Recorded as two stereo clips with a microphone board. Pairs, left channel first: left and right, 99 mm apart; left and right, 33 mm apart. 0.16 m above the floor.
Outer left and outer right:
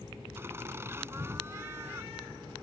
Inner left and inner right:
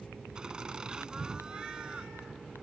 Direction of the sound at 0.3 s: 25° right (ahead or behind).